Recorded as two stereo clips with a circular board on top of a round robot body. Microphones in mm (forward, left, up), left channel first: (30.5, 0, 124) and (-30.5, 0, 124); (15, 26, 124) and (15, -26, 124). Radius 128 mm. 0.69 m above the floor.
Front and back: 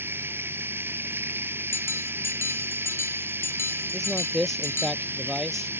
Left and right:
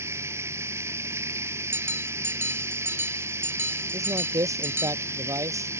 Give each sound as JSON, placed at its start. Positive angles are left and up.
{"t": 0.0, "sound": "running water", "azimuth_deg": -125}
{"t": 1.7, "sound": "a bell", "azimuth_deg": -45}
{"t": 3.9, "sound": "a man speaking", "azimuth_deg": -85}